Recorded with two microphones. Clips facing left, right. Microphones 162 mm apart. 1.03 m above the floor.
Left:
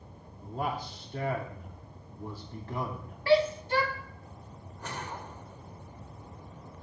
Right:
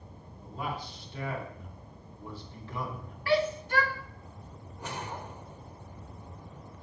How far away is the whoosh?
About 1.1 m.